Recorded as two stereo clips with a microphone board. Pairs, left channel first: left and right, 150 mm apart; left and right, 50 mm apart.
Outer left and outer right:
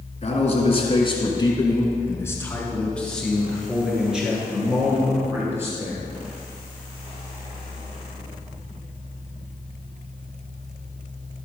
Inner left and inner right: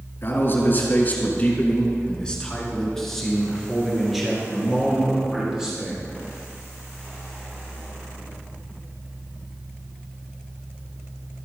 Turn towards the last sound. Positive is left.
turn(degrees=-20)  # may be behind; listen again after turning